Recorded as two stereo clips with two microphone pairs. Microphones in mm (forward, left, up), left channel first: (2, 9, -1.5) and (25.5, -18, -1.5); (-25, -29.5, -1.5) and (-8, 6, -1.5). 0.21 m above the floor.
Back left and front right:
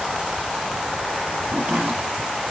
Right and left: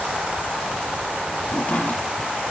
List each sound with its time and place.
1.5 s chopping: 65° right, 5.5 m